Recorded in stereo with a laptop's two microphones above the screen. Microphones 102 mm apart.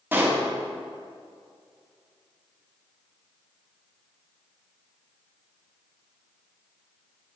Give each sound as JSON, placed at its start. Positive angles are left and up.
{"t": 0.1, "sound": "a pop", "side_deg": -20, "distance_m": 1.5}